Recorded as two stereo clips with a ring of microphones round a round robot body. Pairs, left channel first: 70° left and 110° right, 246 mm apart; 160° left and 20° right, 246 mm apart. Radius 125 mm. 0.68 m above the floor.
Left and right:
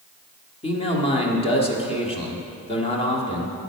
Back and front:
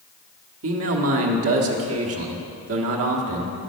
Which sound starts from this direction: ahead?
A man speaking, at 0.6 s.